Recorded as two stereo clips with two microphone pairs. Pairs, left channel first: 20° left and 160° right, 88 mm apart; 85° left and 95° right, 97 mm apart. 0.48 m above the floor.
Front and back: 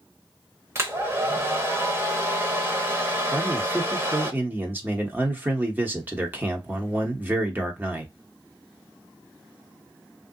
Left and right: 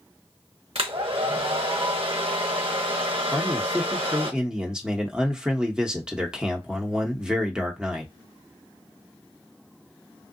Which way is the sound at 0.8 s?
105° right.